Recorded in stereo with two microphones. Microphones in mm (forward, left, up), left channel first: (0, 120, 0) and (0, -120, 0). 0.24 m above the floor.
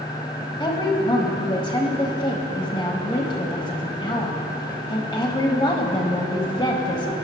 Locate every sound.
0.6 s a woman speaking: 20° left (ahead or behind), 1.2 m